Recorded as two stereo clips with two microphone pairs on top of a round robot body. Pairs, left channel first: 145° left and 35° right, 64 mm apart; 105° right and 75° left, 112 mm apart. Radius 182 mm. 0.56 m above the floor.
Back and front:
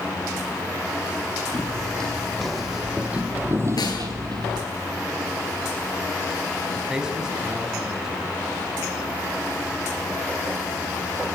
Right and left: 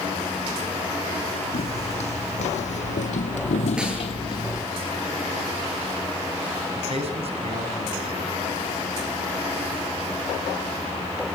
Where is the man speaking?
45° left, 6 m.